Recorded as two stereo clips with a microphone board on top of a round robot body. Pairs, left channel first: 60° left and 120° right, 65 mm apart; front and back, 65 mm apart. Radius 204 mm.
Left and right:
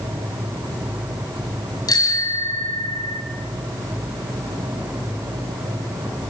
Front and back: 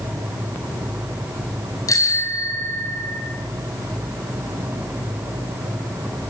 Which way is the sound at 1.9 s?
35° left.